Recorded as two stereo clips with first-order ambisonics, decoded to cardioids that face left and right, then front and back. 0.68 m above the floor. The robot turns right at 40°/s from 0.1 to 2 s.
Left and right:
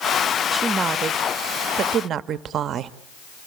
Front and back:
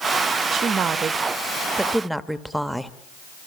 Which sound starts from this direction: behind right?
A woman speaking, at 0.5 s.